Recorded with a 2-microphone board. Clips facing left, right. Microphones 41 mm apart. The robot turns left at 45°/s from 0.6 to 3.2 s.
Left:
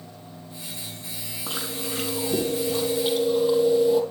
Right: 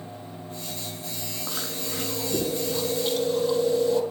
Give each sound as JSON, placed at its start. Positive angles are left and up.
{"t": 1.5, "sound": "chewing", "azimuth_deg": 95, "distance_m": 3.0}